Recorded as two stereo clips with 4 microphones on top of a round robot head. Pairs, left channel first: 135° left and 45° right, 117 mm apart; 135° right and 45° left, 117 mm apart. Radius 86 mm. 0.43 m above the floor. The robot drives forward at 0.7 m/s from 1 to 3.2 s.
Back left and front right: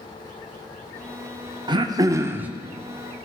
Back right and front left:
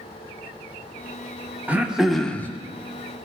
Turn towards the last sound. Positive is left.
turn(degrees=-155)